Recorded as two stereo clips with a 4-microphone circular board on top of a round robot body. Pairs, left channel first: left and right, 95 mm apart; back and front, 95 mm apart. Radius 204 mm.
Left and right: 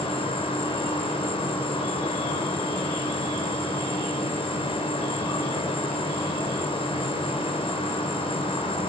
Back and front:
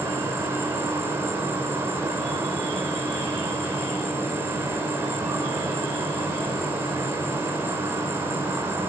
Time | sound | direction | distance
0.0 | an insect | 65° left | 6.5 m